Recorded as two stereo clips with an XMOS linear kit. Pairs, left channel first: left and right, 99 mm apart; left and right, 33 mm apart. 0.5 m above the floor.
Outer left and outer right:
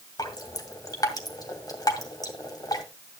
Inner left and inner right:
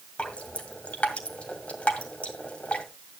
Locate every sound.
0.2 s dripping: 40° left (ahead or behind), 2 m